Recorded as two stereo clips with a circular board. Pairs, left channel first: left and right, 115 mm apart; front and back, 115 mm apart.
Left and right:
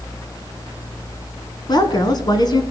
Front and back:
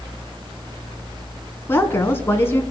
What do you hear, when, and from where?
1.7 s a woman speaking: 60° left, 1.8 m